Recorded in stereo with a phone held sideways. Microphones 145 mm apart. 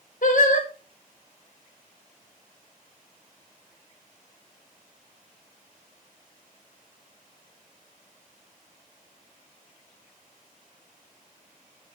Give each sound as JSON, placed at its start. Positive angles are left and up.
{"t": 0.2, "sound": "singing", "side_deg": 60, "distance_m": 1.3}